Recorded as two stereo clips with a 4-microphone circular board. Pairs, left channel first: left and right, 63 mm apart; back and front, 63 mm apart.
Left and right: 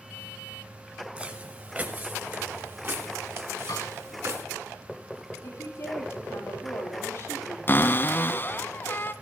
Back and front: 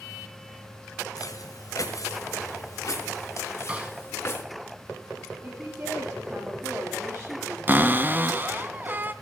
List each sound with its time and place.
1.2 s footsteps: 160° right, 3 m; by 4.4 s 130° right, 3.5 m
3.7 s a snare drum: 65° left, 5 m
5.4 s a woman speaking: 45° left, 9.5 m
7.7 s a cupboard door: 50° left, 0.8 m